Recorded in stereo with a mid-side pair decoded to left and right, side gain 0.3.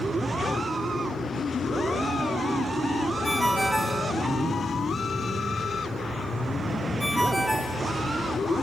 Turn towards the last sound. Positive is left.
turn(degrees=-10)